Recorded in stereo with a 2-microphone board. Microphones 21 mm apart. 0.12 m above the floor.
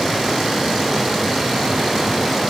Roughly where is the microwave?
No microwave in this recording.